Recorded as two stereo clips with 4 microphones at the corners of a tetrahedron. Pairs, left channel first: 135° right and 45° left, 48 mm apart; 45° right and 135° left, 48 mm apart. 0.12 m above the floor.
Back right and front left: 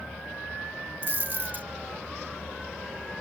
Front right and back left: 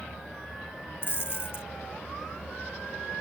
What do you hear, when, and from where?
1.0 s a dropped coin: 5° right